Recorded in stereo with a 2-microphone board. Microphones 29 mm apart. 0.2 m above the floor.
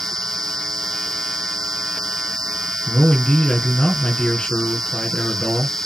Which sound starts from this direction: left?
A man speaking, at 2.9 s.